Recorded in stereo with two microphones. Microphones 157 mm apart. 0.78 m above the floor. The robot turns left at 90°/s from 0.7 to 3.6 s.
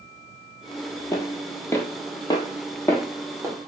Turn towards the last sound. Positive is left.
turn(degrees=-30)  # may be behind; listen again after turning